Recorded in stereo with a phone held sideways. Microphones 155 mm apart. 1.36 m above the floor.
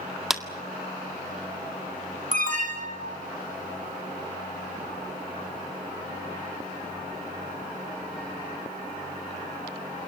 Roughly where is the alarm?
Right.